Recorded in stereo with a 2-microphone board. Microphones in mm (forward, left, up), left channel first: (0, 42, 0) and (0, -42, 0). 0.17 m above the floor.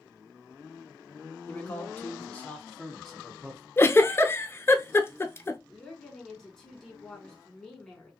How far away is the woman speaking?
About 2 m.